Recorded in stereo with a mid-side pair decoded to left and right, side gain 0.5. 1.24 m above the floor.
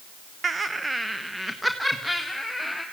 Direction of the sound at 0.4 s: 30° right.